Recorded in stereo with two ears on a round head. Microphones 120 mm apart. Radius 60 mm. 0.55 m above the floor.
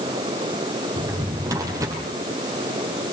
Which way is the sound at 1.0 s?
25° right (ahead or behind).